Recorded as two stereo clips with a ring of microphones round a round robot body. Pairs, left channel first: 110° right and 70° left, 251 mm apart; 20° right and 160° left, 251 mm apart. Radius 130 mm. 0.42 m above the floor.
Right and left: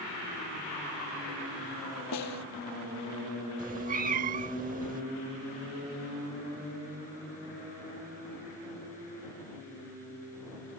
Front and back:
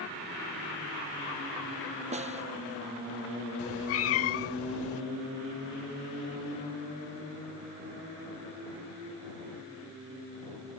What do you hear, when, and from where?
2.1 s a snare drum: 135° right
3.6 s a cat meowing: 10° left